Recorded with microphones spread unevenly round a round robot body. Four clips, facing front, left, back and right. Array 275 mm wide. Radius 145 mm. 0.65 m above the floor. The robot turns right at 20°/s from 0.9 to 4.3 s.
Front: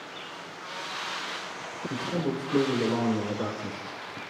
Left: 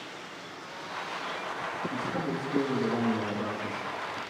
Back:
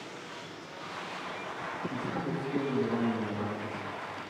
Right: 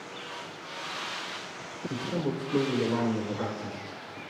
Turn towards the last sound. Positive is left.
turn(degrees=5)